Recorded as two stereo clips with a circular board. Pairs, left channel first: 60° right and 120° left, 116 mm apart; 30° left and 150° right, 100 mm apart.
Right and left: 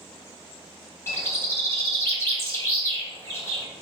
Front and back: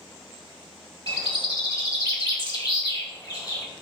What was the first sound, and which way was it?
A bird, straight ahead.